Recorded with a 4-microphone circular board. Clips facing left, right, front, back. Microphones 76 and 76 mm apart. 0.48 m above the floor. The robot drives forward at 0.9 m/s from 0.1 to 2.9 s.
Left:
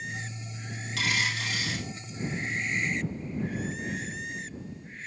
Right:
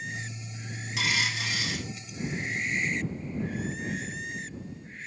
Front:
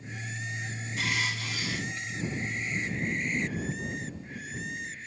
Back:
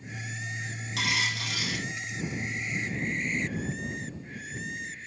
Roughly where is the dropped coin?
Behind.